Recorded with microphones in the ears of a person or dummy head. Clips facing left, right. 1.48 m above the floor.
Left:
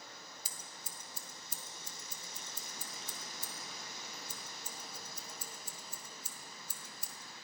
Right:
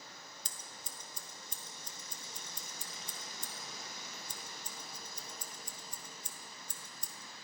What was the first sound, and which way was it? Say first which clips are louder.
Scissors: even; 5° left (ahead or behind).